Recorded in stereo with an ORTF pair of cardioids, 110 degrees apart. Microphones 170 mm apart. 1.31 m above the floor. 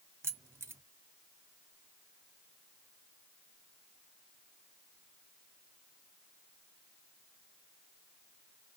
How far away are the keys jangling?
About 0.5 m.